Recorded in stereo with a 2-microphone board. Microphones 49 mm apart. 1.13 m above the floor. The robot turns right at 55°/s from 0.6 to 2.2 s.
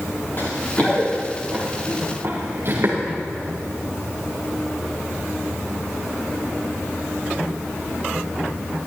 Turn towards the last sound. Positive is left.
turn(degrees=-65)  # may be behind; listen again after turning